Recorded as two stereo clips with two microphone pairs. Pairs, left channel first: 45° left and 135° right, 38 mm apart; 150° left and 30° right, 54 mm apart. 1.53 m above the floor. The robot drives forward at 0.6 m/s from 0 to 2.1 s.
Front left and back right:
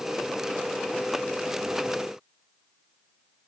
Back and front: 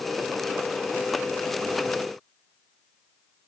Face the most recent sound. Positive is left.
No sound to turn to.